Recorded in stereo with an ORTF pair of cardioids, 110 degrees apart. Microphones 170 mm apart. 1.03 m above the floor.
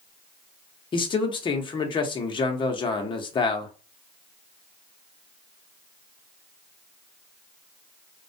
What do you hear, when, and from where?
0.9 s a man speaking: 30° left, 0.7 m